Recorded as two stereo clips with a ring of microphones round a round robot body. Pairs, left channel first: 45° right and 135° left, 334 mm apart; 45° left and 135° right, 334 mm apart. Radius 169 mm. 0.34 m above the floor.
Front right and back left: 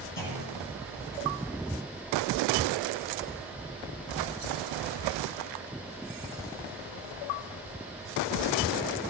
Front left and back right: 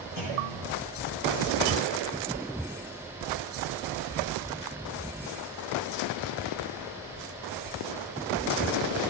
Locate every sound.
0.2 s a clunk: 10° left, 7 m